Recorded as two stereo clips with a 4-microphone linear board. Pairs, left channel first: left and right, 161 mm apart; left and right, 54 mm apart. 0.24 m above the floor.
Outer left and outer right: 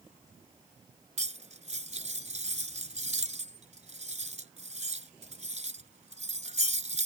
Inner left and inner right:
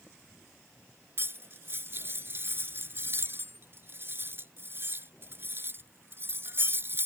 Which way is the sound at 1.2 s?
45° right (ahead or behind).